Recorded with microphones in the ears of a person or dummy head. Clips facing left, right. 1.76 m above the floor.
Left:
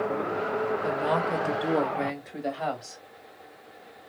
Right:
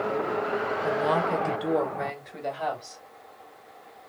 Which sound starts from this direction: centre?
A woman speaking, at 0.8 s.